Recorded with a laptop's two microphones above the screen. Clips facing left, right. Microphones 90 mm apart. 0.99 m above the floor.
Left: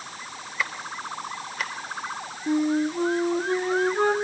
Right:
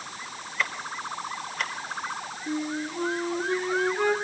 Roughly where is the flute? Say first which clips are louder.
Left 8 dB; left.